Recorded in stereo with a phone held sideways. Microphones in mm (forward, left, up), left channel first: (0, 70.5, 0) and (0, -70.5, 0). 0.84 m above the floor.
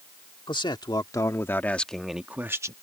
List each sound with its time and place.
0.5 s a man speaking: 35° left (ahead or behind); by 2.7 s 25° right (ahead or behind)